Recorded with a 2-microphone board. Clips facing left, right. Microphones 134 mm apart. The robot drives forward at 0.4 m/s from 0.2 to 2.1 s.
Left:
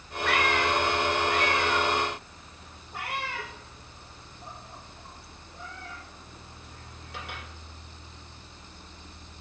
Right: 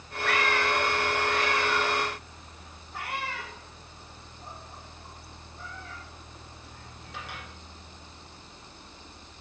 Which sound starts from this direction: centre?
A cat meowing, at 0.2 s.